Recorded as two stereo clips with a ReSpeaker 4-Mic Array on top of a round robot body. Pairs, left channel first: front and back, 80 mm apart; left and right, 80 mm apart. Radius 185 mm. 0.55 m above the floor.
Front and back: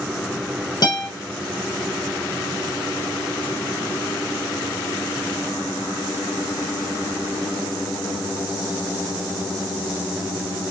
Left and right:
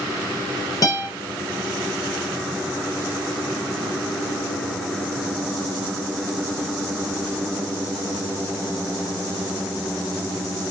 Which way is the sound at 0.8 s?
40° left.